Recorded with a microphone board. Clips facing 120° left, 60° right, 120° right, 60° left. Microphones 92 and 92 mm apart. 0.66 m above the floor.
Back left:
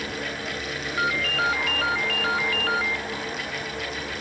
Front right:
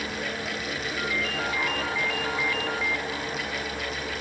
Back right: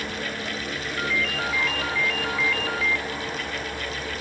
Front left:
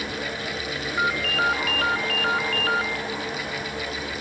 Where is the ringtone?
95° left, 0.9 m.